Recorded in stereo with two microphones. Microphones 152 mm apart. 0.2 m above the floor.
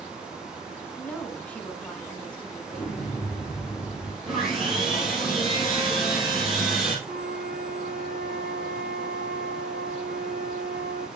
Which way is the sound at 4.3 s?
Centre (ahead or behind).